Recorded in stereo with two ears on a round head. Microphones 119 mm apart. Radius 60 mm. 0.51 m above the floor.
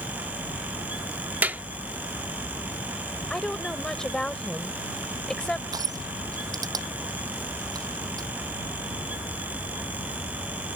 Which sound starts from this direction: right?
Crushing, at 5.7 s.